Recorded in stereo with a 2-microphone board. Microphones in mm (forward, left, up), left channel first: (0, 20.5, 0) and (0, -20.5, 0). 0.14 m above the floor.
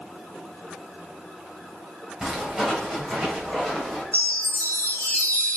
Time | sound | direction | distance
2.2 | footsteps | 10° right (ahead or behind) | 2.5 m
4.1 | a chime | 40° left (ahead or behind) | 1.6 m